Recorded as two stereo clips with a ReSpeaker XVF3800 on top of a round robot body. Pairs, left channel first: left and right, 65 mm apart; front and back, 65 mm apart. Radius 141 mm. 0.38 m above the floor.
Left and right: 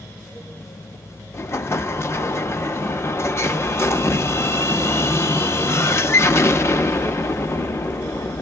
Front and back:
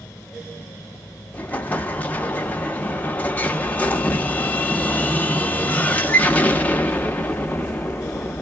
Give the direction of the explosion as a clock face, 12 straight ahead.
10 o'clock.